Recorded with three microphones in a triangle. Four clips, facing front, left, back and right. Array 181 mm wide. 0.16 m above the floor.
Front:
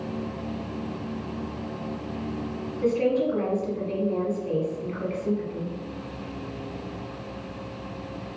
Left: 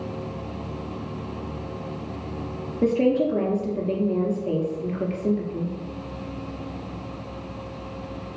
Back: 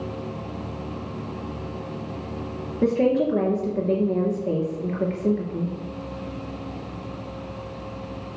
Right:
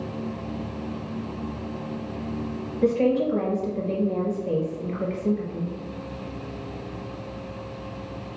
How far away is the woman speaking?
About 2.5 m.